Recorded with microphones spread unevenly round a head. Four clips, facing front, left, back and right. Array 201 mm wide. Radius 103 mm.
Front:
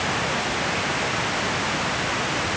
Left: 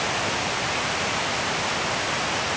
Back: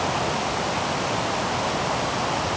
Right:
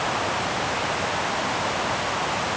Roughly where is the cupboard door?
No cupboard door in this recording.